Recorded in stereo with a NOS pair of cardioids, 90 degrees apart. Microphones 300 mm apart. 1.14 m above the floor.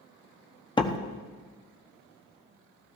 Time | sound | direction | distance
0.8 | a door slam | 15° left | 1.1 m